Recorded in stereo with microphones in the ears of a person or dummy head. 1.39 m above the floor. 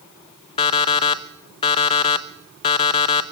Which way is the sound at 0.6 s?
35° left (ahead or behind).